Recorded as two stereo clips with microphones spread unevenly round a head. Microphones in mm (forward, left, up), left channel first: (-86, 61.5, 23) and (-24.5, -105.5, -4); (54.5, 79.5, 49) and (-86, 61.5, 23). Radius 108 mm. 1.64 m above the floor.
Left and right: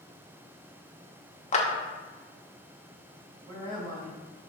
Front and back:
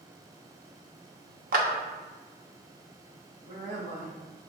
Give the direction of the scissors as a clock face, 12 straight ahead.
I don't hear scissors.